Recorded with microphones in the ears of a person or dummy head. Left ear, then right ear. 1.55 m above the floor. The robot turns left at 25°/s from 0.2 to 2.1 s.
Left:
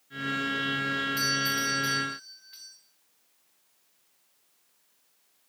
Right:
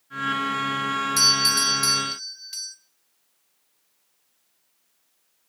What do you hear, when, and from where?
1.2 s a doorbell: 60° right (ahead or behind), 0.7 m; by 2.8 s 80° right, 0.7 m